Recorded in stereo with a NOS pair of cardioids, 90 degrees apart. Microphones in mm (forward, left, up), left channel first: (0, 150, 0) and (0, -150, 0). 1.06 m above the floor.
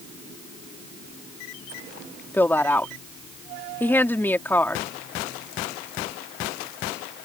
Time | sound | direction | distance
2.3 | a woman speaking | 5° left | ?